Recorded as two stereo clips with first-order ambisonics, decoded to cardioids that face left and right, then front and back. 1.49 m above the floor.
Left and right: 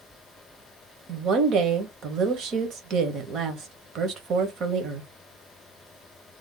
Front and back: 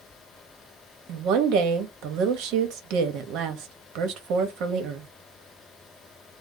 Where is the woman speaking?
145° right, 1.0 m.